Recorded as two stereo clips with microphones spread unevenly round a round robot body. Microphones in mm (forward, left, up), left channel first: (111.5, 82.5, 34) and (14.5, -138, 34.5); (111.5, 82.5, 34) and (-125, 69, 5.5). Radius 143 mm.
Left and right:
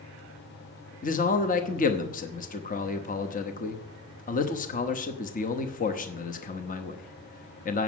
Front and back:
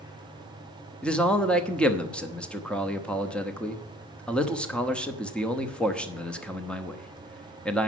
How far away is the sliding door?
I don't hear a sliding door.